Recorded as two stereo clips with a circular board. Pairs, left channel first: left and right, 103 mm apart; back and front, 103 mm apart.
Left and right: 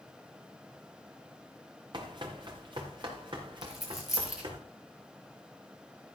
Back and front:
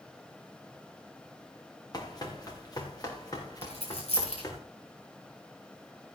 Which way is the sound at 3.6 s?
175° right.